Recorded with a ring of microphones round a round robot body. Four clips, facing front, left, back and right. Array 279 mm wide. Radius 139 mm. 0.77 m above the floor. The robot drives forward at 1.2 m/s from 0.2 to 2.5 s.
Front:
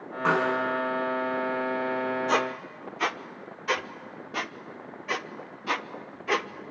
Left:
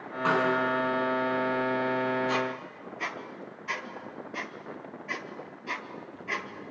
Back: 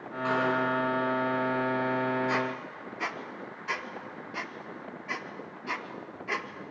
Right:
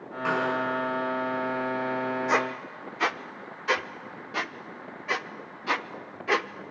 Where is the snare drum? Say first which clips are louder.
Left 2 dB, front 3 dB; 20° left, 5 m.